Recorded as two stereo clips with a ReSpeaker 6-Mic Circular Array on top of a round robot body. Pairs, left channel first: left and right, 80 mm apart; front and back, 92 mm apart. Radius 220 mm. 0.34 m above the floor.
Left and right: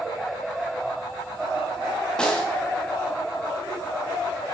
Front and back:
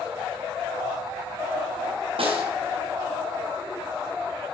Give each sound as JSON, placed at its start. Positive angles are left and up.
{"t": 2.2, "sound": "a snare drum", "azimuth_deg": 170, "distance_m": 4.0}